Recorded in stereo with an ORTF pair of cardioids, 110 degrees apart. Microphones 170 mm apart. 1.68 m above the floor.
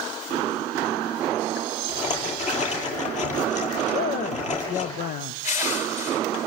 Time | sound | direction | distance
1.9 | a rattle | 45° left | 8.5 m
3.9 | a man speaking | 55° left | 0.7 m
5.4 | crushing | 50° left | 6.5 m